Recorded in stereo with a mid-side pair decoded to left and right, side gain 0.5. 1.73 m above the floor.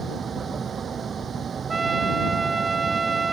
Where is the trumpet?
30° right.